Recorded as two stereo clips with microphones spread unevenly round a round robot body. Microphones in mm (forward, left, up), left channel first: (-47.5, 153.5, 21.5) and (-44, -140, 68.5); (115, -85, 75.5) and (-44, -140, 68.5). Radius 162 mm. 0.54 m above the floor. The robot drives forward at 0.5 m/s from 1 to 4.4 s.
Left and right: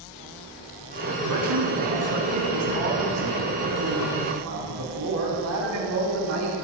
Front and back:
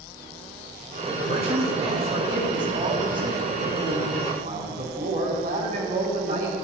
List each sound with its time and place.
1.3 s a man speaking: 100° right, 3 m; by 6.5 s 125° right, 4 m